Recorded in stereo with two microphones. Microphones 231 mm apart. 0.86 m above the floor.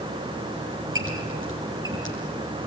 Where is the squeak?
60° right (ahead or behind), 5.5 m.